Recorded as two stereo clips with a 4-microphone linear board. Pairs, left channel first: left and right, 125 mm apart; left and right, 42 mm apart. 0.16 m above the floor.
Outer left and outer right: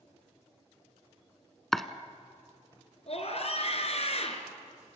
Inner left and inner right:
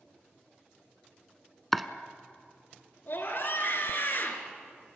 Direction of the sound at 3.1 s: 55° left (ahead or behind).